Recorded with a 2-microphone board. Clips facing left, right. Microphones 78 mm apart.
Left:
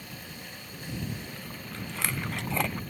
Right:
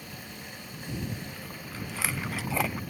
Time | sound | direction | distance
1.1 | chewing | 5° right (ahead or behind) | ?